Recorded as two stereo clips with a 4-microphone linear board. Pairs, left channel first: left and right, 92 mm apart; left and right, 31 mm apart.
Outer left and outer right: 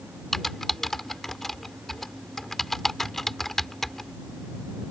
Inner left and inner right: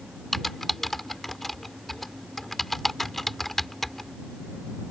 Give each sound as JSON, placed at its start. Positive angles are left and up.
{"t": 0.3, "sound": "typing on a keyboard", "side_deg": 5}